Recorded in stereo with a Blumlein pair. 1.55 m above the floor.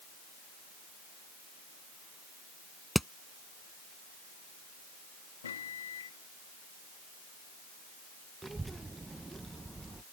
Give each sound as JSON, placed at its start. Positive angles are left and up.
{"t": 3.0, "sound": "hammering", "azimuth_deg": 0}
{"t": 5.4, "sound": "a microwave", "azimuth_deg": 65}
{"t": 8.4, "sound": "a child speaking", "azimuth_deg": -10}